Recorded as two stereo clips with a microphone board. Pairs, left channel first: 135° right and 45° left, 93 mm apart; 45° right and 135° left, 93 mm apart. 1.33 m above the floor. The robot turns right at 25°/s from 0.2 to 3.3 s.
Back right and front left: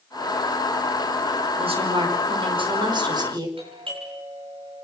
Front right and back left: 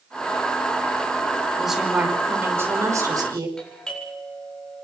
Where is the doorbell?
40° left, 8 m.